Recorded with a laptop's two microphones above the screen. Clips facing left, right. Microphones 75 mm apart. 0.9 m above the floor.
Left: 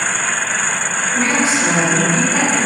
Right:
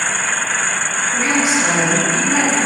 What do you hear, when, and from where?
1.1 s a woman speaking: 15° right (ahead or behind), 1.5 m